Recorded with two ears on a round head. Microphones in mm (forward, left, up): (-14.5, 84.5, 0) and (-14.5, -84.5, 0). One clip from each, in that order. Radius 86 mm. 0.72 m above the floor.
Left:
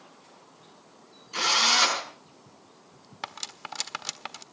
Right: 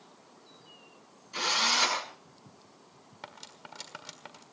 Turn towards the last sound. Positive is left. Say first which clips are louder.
# left 10 dB
turn(degrees=60)  # may be behind; listen again after turning